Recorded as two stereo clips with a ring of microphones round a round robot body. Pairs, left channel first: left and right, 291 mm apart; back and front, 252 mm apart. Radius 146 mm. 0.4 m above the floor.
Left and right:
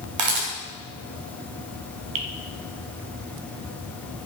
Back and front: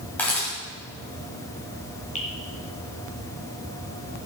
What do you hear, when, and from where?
0.2 s a camera shutter: 95° right, 3 m
2.1 s dripping: 110° right, 1.7 m